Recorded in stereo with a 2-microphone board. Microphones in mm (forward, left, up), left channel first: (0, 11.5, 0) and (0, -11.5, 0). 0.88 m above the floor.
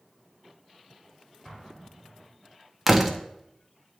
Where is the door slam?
5° right (ahead or behind), 0.6 m.